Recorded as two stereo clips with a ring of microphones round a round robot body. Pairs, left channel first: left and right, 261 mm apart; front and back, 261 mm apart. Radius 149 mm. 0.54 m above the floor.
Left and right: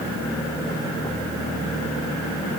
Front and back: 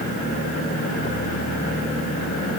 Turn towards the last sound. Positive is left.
No sound to turn to.